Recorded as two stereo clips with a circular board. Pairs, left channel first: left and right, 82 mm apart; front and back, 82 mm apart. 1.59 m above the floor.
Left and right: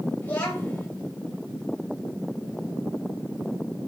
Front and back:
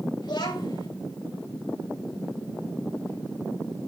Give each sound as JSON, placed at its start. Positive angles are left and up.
{"t": 0.2, "sound": "a child speaking", "azimuth_deg": 20, "distance_m": 6.5}